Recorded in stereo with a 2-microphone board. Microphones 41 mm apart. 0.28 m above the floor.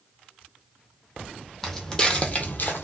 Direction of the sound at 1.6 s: 5° left (ahead or behind).